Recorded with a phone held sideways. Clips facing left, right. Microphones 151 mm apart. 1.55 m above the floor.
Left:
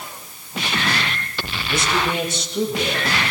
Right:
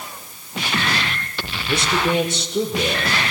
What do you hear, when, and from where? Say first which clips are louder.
1.7 s a man speaking: right 2 dB; 70° right (ahead or behind), 6.5 m; by 3.2 s 65° right (ahead or behind), 7.5 m